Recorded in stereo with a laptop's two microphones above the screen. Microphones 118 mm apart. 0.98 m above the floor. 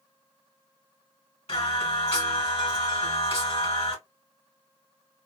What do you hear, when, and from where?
1.5 s singing: 55° left (ahead or behind), 1.8 m